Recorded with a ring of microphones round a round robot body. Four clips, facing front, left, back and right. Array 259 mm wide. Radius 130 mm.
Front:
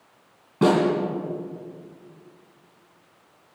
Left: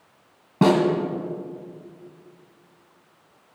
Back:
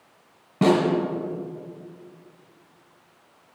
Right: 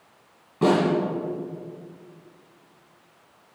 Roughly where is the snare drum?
Left.